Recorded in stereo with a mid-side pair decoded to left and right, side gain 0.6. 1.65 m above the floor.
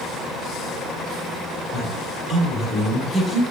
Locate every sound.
1.7 s a woman speaking: 20° left, 1.6 m